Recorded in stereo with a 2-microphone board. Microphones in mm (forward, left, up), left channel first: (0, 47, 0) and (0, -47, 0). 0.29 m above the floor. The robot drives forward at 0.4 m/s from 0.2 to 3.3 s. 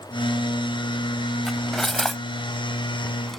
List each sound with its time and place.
1.5 s cutlery clinking: 5° left (ahead or behind)